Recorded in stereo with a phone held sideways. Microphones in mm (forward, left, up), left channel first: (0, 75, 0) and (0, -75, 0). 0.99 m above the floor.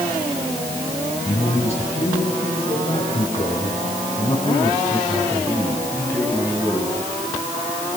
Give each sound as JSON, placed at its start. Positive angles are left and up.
{"t": 1.2, "sound": "a man speaking", "side_deg": 55, "distance_m": 8.0}